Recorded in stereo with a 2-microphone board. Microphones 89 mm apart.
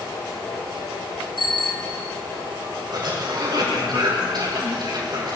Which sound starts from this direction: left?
A bicycle bell, at 1.4 s.